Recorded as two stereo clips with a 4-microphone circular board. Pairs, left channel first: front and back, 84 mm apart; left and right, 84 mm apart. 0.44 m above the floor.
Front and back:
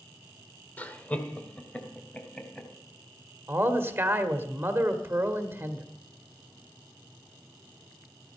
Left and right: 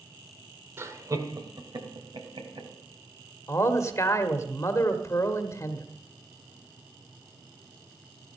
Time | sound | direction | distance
0.8 | laughter | 55° right | 1.6 m
3.5 | a man speaking | 125° left | 1.5 m